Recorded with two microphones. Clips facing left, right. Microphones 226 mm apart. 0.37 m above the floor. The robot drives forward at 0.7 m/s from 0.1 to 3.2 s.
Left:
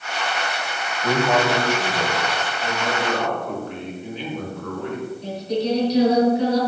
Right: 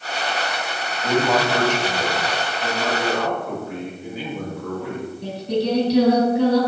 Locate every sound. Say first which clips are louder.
1.0 s a man speaking: even; 10° left (ahead or behind), 3 m
2.6 s a man speaking: right 2 dB; 5° right (ahead or behind), 4 m
5.2 s singing: right 2 dB; 60° right (ahead or behind), 3.5 m